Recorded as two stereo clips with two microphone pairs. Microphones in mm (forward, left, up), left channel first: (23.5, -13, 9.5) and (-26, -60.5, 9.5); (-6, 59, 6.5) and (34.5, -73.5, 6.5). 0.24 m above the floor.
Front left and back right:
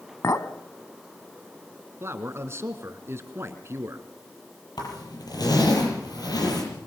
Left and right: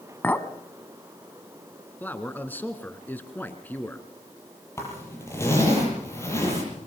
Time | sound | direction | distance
0.2 | a clink | 35° left | 1.4 m
2.0 | a man speaking | straight behind | 2.5 m
4.8 | a zipper | 40° left | 8.5 m